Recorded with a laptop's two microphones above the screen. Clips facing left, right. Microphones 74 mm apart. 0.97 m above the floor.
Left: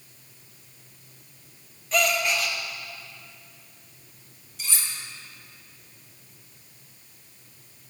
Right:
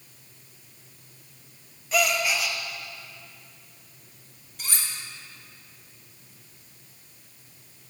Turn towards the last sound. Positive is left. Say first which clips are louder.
# even
turn(degrees=-50)  # may be behind; listen again after turning